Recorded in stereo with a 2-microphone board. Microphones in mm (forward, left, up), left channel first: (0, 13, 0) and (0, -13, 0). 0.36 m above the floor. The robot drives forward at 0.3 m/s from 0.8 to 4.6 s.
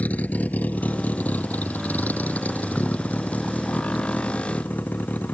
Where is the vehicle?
70° left (ahead or behind); by 5.3 s 85° left.